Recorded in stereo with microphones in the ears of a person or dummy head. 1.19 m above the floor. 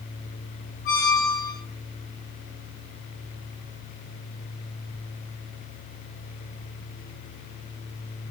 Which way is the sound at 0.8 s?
45° left (ahead or behind).